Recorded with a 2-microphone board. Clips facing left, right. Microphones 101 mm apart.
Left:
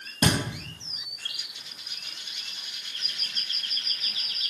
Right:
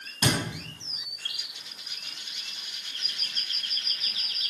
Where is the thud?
50° left (ahead or behind), 2.5 m.